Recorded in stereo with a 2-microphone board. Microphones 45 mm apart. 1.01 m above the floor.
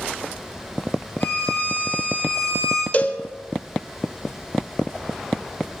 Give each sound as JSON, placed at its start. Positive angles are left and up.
{"t": 1.2, "sound": "a violin", "side_deg": 35, "distance_m": 4.0}
{"t": 2.9, "sound": "a cowbell", "side_deg": 35, "distance_m": 0.8}